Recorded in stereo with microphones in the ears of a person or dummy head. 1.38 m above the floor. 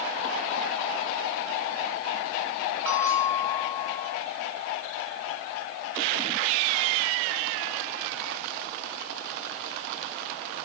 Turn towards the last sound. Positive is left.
turn(degrees=-25)  # may be behind; listen again after turning